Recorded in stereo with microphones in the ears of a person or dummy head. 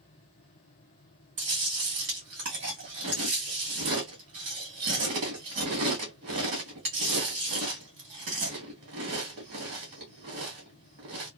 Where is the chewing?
35° right (ahead or behind), 1.0 m.